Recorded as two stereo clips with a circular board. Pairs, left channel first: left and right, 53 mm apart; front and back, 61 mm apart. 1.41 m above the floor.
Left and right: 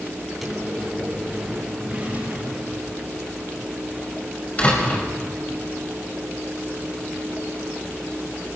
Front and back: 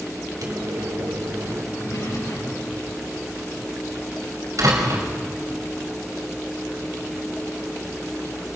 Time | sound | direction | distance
0.4 | a microwave | 175° right | 4 m
1.7 | a drawer | 25° right | 6.5 m
4.6 | a door slam | 155° left | 5 m